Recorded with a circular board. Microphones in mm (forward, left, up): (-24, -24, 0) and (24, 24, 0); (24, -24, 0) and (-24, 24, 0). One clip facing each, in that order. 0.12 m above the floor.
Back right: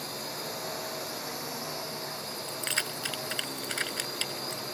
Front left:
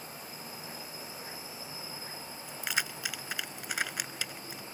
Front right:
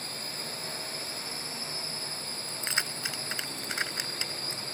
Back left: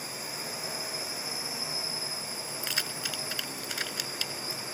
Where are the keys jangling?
20° right.